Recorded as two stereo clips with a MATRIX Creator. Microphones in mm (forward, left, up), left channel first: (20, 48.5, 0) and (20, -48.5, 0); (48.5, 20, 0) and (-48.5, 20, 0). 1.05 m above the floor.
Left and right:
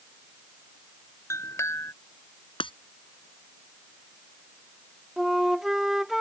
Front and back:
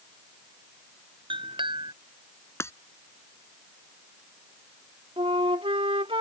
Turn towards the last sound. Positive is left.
turn(degrees=-175)